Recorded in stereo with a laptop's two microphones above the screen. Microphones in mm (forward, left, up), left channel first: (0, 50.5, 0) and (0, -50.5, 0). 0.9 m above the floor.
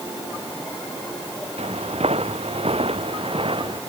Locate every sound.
1.6 s footsteps: 85° right; by 3.8 s 60° right (ahead or behind)